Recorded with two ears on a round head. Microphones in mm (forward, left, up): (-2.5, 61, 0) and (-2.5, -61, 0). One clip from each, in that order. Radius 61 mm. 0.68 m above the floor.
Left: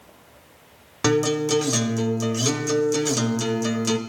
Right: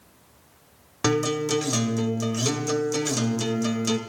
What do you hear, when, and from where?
1.0 s a guitar: centre (ahead or behind), 1.3 m